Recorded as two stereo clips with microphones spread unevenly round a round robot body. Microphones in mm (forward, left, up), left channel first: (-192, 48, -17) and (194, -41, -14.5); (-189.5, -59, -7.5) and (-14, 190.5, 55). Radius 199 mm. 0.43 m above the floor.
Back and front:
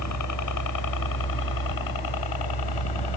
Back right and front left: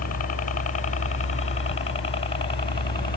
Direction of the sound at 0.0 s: 160° right.